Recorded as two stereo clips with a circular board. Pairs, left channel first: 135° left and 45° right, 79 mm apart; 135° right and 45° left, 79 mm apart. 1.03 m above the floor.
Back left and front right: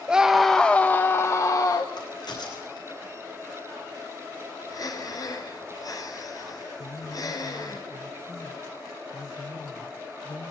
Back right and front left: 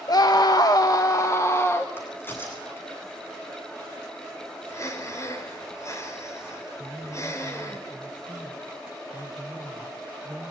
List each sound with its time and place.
0.1 s a scream: 120° right, 1.3 m; by 1.9 s 170° left, 1.9 m
2.0 s a crack: 165° left, 9.5 m
4.7 s breathing: 175° left, 4.5 m
6.8 s a woman speaking: 130° left, 5 m